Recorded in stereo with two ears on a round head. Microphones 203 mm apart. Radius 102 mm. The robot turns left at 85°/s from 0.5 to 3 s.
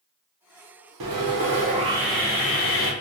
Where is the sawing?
85° right, 0.7 m; by 2.9 s 110° left, 0.7 m.